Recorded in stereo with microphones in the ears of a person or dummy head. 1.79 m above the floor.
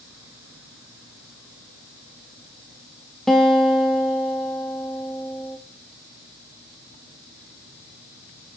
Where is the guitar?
Centre (ahead or behind), 1.2 m.